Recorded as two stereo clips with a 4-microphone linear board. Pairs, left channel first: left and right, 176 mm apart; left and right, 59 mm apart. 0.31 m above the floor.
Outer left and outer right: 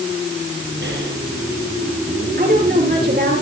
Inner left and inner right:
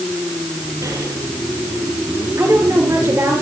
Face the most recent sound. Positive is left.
turn(degrees=-60)  # may be behind; listen again after turning